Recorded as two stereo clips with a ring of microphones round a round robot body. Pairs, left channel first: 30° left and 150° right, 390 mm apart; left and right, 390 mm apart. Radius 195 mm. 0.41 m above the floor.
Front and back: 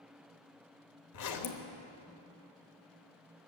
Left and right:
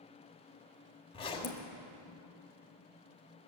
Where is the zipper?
15° left, 1.3 m.